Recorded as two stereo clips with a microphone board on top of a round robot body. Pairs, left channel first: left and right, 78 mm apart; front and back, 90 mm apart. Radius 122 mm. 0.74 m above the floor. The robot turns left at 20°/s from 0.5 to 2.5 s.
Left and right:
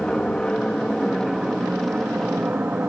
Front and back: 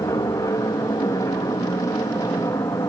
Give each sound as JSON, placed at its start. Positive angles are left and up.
{"t": 0.0, "sound": "an aircraft", "azimuth_deg": 15}